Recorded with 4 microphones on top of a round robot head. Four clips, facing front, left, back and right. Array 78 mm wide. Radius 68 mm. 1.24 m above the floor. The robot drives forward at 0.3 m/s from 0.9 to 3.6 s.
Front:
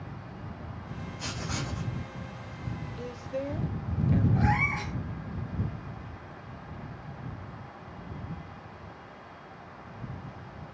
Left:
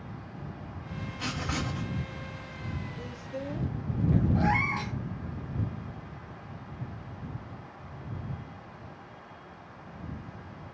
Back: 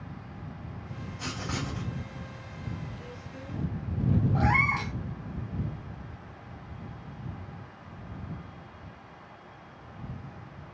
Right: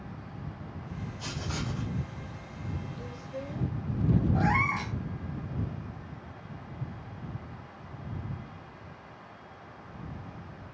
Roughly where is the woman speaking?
Ahead.